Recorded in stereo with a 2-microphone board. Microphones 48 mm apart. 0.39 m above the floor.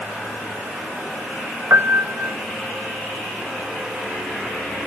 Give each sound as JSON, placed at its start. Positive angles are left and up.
{"t": 1.7, "sound": "a piano", "side_deg": -60, "distance_m": 0.6}